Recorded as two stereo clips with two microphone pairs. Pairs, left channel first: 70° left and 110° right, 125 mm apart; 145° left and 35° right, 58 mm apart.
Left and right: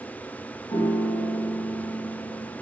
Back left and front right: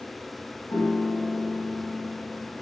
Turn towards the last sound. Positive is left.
turn(degrees=125)